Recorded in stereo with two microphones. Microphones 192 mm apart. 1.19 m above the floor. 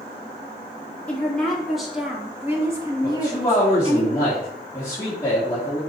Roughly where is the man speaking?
Centre.